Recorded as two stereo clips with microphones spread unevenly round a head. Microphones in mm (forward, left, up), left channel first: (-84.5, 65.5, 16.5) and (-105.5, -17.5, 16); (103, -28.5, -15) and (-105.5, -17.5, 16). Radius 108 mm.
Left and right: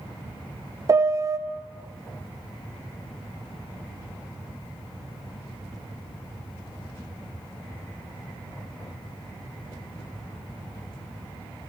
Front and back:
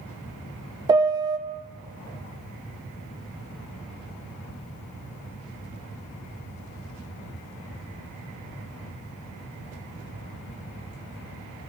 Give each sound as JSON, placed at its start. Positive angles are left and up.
{"t": 0.9, "sound": "a piano", "azimuth_deg": -110, "distance_m": 0.8}